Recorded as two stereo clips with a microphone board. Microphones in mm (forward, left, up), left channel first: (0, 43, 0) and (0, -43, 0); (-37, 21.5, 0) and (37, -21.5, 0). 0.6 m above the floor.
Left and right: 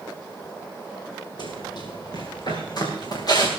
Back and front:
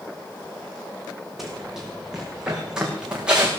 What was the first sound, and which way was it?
Running footsteps, 60° left.